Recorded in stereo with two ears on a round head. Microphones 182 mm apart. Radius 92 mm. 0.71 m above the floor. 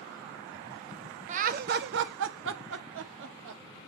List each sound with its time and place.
1.3 s laughter: 35° right (ahead or behind), 0.7 m; by 3.6 s 65° right (ahead or behind), 1.4 m